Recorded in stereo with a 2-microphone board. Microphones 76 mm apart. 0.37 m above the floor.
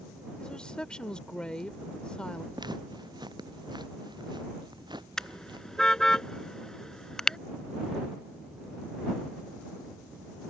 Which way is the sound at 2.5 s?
65° right (ahead or behind).